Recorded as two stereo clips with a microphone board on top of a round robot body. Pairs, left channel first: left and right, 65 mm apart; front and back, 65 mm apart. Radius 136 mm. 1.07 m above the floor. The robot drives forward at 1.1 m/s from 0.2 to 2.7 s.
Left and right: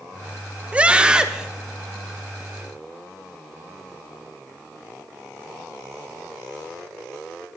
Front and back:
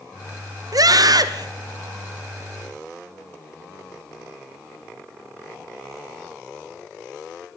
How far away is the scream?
About 1.2 m.